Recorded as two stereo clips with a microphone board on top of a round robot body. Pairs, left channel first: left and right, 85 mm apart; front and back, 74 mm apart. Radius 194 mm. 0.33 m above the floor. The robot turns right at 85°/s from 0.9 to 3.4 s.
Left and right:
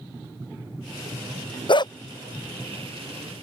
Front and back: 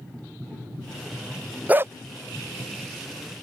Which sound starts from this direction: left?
A dog barking, at 1.7 s.